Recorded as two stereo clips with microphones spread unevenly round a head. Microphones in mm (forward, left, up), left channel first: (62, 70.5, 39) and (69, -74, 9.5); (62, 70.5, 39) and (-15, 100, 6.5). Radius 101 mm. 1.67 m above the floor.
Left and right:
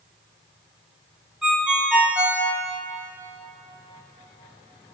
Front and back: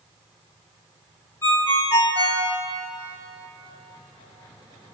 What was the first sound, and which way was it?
A ringtone, 5° left.